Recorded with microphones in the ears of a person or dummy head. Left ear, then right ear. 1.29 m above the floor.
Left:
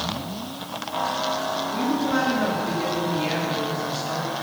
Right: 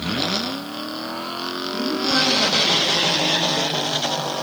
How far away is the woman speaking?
About 2.5 m.